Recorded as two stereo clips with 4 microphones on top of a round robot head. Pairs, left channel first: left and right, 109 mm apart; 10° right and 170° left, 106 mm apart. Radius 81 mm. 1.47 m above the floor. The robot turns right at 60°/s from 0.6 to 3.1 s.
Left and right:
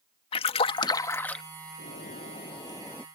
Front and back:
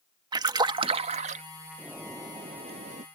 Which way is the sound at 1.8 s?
90° left.